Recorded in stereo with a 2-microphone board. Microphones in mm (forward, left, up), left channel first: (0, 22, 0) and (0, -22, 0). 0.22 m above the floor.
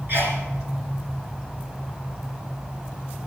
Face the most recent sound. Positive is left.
turn(degrees=-50)  # may be behind; listen again after turning